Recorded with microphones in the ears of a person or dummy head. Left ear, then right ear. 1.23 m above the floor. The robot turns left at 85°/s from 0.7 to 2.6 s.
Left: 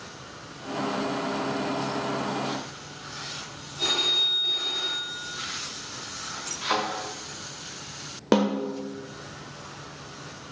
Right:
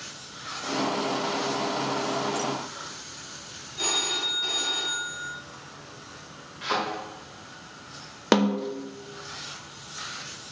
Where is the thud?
5° left (ahead or behind), 2 m.